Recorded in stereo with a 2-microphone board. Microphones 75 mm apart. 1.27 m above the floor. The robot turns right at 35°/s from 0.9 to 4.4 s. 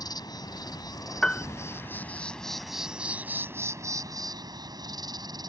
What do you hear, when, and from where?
0.0 s an insect: 120° left; by 5.5 s 120° right
1.2 s a piano: 10° left (ahead or behind); by 1.4 s 15° left (ahead or behind)